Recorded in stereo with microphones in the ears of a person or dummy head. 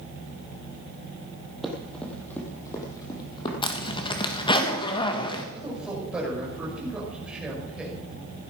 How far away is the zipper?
About 1.5 m.